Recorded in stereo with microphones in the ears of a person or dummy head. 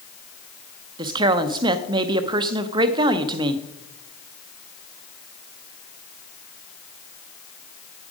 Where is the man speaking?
35° right (ahead or behind), 0.7 m.